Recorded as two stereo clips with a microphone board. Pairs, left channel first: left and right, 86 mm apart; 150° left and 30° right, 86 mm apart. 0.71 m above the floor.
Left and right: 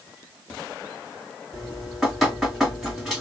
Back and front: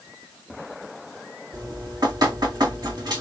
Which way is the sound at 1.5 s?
5° right.